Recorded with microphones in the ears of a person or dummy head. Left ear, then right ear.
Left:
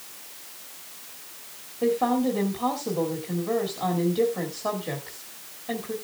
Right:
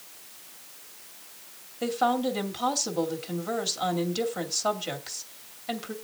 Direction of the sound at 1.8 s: 50° right (ahead or behind).